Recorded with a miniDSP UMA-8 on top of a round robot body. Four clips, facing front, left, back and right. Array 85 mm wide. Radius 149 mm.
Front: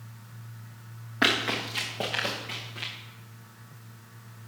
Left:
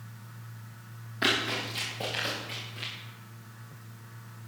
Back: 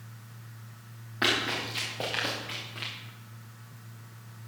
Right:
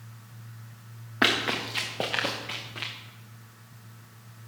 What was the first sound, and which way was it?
Running footsteps, 70° right.